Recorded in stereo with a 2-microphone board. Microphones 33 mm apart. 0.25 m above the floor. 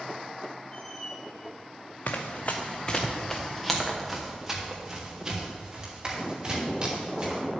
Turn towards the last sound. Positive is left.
turn(degrees=-25)  # may be behind; listen again after turning